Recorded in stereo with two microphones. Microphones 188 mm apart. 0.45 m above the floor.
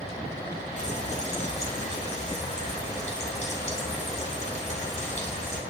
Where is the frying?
35° left (ahead or behind), 2.5 m.